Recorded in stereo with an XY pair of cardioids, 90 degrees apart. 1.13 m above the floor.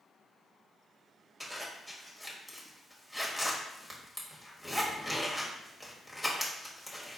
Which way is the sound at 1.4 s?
Straight ahead.